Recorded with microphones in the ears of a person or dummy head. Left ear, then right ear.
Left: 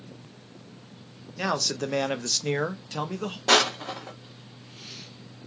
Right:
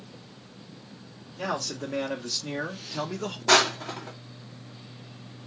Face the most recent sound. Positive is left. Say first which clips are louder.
# even
turn(degrees=20)  # may be behind; listen again after turning